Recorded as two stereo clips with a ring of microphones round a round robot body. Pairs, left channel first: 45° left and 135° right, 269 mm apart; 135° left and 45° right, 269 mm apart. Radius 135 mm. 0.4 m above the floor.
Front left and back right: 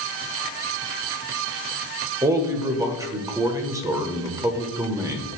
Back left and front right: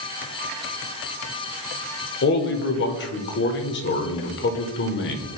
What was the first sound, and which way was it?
A man speaking, 150° left.